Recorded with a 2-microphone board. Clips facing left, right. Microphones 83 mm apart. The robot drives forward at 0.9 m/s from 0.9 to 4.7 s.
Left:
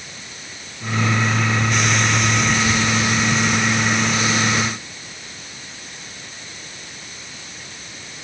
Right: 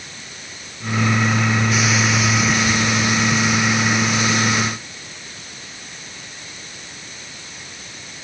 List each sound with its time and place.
Only background noise.